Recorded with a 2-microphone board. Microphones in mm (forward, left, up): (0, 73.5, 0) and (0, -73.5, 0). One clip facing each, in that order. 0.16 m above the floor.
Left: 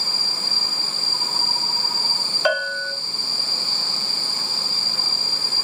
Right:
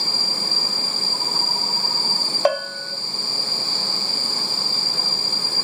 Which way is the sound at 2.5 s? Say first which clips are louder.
Right 2 dB; 40° right (ahead or behind).